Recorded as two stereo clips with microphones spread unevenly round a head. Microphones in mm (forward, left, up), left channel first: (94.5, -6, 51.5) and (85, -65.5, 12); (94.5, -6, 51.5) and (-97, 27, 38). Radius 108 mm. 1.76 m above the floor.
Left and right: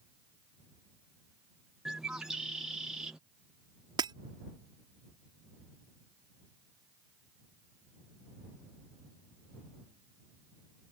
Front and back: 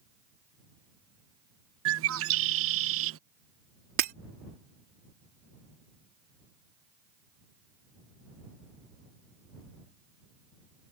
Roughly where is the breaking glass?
Behind right.